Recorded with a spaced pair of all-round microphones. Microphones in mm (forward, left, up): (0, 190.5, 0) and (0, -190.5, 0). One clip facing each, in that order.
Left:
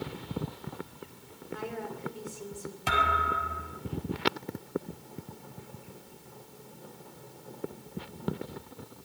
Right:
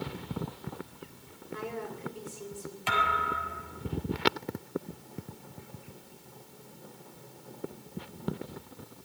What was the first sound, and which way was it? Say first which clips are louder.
A woman speaking: even; 10° right (ahead or behind).